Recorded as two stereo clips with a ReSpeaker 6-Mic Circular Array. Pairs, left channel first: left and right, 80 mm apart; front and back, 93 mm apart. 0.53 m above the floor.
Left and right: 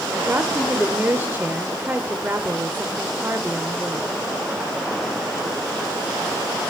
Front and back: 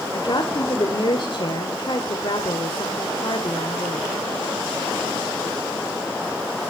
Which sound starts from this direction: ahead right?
A woman speaking, at 0.1 s.